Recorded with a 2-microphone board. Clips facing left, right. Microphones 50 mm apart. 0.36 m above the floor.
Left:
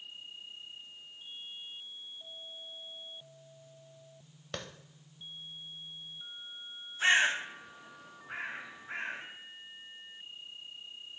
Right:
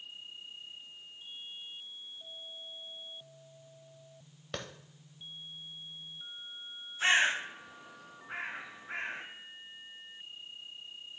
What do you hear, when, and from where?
4.5 s a clap: centre (ahead or behind), 1.1 m
7.0 s a bird: centre (ahead or behind), 4 m